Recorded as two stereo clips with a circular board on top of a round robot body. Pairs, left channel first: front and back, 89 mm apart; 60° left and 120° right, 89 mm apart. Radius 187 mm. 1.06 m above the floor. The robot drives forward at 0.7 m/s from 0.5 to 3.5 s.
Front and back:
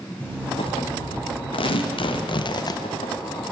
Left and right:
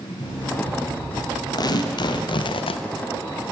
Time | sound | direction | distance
0.2 | an alarm clock | 70° left | 3 m
1.5 | tearing paper | 15° left | 1.3 m